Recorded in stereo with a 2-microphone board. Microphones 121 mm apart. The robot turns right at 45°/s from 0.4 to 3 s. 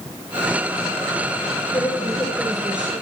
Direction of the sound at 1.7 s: 140° left.